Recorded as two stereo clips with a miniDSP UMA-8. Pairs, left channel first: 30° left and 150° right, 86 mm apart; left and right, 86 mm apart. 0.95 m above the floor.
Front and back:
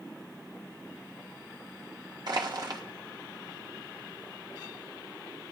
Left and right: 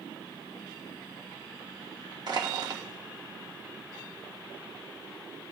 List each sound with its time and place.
2.3 s crushing: 120° right, 1.4 m